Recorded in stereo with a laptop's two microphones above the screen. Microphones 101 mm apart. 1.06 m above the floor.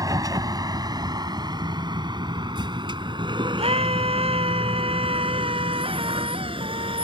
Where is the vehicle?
40° right (ahead or behind); by 7.0 s 65° right (ahead or behind).